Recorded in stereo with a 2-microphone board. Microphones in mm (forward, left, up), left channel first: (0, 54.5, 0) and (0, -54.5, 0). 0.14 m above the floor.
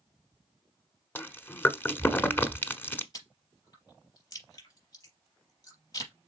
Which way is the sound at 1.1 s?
20° left (ahead or behind).